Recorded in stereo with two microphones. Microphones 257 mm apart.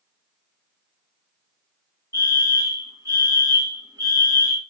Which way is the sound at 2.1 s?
15° right (ahead or behind).